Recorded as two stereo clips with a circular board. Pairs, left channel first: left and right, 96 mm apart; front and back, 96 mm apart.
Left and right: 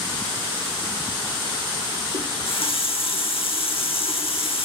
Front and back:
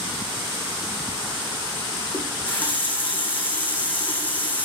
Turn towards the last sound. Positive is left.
turn(degrees=75)